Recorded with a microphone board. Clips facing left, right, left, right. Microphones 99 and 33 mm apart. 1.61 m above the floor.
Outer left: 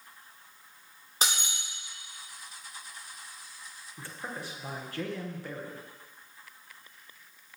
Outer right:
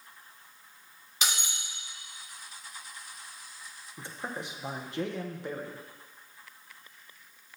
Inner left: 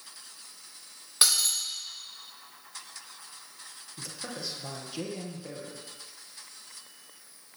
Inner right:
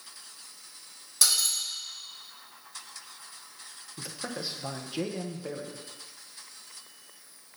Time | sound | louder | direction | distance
1.2 | breaking glass | outer left 2 dB, inner left 1 dB | 40° left (ahead or behind) | 2.5 m
4.0 | a man speaking | outer right 2 dB, inner right 2 dB | 20° right (ahead or behind) | 0.8 m